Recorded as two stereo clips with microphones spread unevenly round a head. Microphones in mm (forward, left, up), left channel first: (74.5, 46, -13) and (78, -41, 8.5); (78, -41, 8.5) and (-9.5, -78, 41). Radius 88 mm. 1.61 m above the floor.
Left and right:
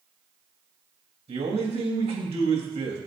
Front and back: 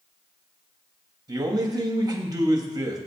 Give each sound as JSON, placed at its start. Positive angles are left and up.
{"t": 1.3, "sound": "a man speaking", "azimuth_deg": -105, "distance_m": 3.5}